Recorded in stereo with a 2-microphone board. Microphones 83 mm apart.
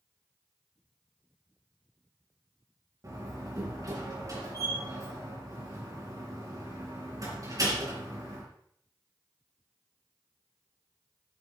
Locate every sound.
3.0 s a door slam: 45° right (ahead or behind), 4 m